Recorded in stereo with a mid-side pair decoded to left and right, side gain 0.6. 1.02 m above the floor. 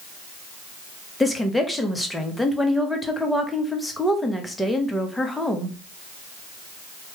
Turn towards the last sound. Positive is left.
turn(degrees=5)